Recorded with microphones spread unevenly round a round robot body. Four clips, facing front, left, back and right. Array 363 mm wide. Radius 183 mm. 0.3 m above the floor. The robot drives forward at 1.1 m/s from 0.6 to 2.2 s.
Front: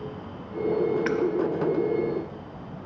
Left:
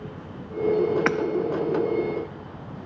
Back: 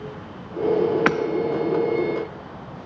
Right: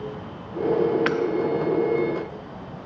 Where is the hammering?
170° left, 0.6 m.